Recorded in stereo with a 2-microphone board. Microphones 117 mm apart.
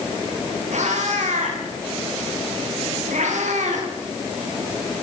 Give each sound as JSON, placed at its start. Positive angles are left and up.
{"t": 0.7, "sound": "a cat meowing", "side_deg": -85, "distance_m": 9.0}